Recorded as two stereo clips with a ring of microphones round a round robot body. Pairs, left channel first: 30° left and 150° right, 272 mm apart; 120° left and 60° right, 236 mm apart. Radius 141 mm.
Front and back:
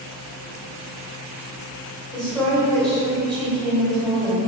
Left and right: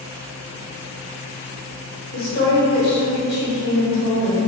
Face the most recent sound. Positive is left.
turn(degrees=115)